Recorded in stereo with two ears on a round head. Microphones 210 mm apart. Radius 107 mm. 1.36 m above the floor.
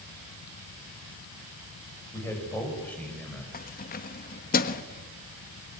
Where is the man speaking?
10° left (ahead or behind), 7.5 m; by 3.4 s 5° left (ahead or behind), 7 m.